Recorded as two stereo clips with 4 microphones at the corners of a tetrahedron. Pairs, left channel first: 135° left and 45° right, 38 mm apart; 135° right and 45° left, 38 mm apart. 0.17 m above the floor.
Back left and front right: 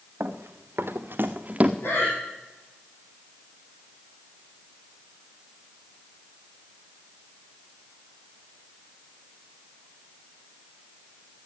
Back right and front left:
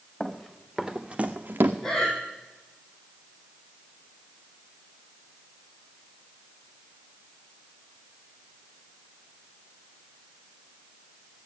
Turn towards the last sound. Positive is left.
turn(degrees=145)